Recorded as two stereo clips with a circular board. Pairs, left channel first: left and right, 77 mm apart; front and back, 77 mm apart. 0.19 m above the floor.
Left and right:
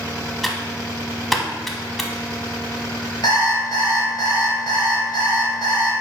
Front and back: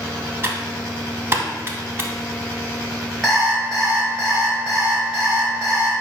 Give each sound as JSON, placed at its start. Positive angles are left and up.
{"t": 0.4, "sound": "typing on a keyboard", "azimuth_deg": 180, "distance_m": 0.6}
{"t": 3.2, "sound": "an alarm clock", "azimuth_deg": 90, "distance_m": 1.6}